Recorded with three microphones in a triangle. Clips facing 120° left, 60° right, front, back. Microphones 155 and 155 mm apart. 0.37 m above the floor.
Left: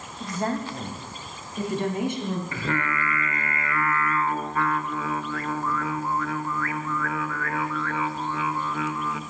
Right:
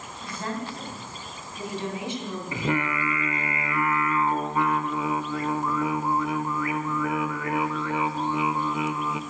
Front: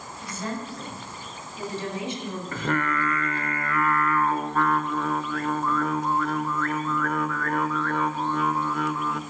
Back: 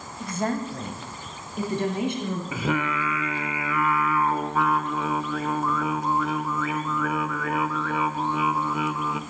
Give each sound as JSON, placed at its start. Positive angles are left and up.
{"t": 0.2, "sound": "a woman speaking", "azimuth_deg": 160, "distance_m": 2.5}
{"t": 2.5, "sound": "singing", "azimuth_deg": -105, "distance_m": 0.8}